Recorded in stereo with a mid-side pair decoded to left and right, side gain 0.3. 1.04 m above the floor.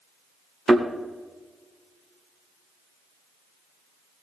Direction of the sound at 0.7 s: 35° right.